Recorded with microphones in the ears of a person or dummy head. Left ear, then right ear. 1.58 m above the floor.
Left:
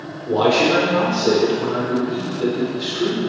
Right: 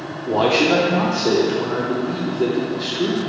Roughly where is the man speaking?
Right.